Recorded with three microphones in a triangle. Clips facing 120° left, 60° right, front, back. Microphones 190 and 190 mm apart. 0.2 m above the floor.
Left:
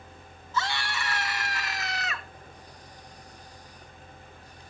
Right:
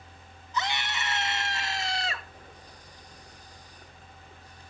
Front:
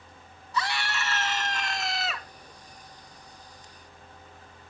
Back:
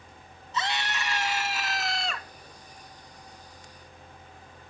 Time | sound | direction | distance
0.5 | a scream | 125° right | 2 m